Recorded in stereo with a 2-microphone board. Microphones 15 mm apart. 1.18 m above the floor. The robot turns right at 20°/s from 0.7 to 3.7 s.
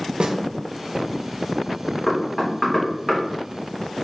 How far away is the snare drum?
About 0.5 m.